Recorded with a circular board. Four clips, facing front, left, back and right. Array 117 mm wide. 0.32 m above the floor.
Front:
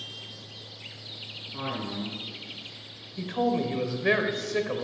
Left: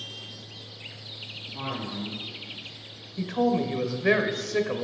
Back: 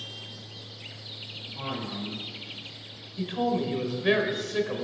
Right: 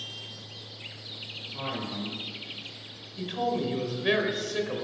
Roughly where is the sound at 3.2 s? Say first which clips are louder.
Left 4 dB, front 1 dB; ahead left.